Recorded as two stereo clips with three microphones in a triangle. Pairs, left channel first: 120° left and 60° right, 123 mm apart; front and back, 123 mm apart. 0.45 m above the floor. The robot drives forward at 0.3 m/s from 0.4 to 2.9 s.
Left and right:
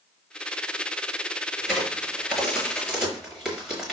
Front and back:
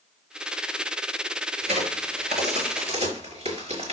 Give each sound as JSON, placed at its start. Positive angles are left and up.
{"t": 1.6, "sound": "a crack", "azimuth_deg": -150, "distance_m": 6.0}